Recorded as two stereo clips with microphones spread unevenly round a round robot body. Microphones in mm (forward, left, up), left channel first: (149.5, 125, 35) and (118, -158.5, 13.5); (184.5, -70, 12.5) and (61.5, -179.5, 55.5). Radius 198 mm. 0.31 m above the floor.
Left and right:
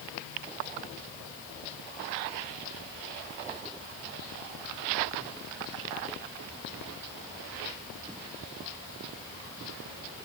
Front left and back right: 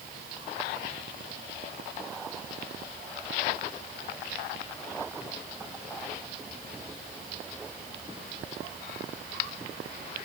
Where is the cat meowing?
No cat meowing in this recording.